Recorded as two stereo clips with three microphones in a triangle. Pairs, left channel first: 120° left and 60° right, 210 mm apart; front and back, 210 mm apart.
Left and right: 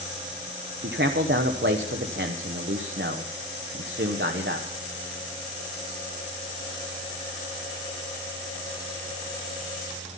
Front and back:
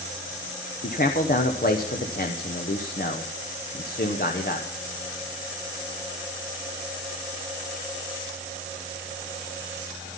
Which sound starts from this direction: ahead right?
A man speaking, at 0.8 s.